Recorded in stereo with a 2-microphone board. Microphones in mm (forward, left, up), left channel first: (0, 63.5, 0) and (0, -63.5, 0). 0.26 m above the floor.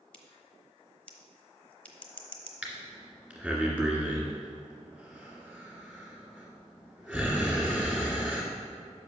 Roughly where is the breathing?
Centre.